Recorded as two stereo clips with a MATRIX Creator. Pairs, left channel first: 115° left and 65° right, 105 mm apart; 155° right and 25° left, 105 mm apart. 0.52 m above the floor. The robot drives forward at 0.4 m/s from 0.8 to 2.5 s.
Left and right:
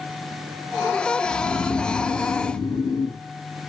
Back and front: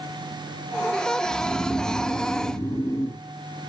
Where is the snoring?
115° left, 0.6 m; by 3.2 s 145° left, 0.9 m.